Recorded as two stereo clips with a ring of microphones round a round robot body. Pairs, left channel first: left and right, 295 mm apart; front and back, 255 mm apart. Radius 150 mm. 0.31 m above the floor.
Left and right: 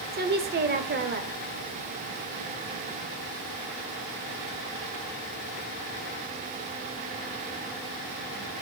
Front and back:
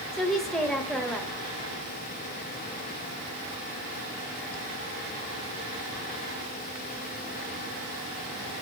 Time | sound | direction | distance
0.1 | a woman speaking | 85° right | 1.1 m